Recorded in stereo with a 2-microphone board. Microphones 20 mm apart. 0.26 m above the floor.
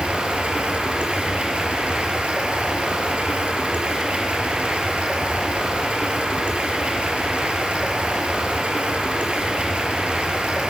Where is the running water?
80° right, 3.5 m.